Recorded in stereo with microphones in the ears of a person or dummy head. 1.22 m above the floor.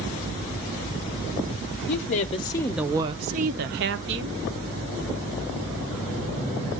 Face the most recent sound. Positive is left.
turn(degrees=-65)  # may be behind; listen again after turning